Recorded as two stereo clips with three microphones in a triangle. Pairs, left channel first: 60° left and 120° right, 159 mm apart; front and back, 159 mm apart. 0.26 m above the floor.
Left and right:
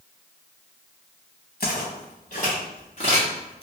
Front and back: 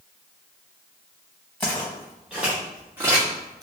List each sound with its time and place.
1.6 s footsteps: 80° left, 1.7 m; by 3.6 s 115° left, 2.0 m